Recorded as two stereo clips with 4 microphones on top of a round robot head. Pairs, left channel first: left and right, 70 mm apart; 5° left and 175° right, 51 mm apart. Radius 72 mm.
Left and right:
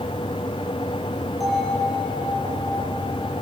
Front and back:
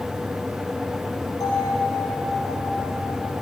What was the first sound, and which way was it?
A bell, straight ahead.